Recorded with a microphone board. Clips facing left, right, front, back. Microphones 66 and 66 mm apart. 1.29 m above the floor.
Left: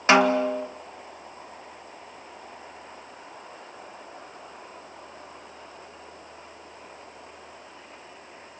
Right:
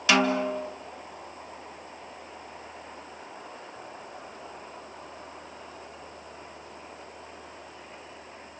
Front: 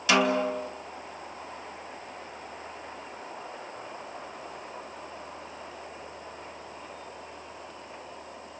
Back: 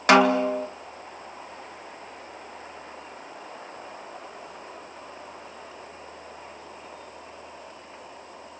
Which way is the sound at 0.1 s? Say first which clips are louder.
Left 5 dB, back 6 dB; 145° left.